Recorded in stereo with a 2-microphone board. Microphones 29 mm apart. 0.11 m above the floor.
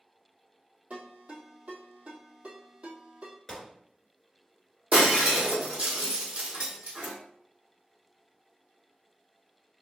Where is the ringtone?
60° right (ahead or behind), 1.8 m.